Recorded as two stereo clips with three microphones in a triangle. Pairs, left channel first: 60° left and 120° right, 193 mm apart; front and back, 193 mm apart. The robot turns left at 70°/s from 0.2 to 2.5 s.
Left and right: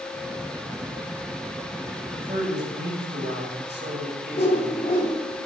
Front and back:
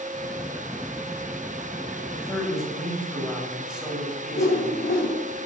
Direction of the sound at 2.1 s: 65° right.